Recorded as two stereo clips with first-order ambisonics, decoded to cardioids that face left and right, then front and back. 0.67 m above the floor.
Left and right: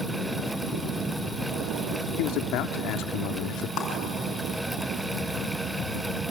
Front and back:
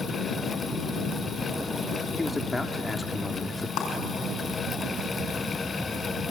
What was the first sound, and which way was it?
A man speaking, 80° left.